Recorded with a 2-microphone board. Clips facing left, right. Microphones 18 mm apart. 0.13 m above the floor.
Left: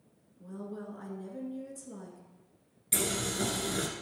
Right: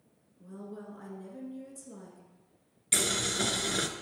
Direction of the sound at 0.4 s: 10° left (ahead or behind).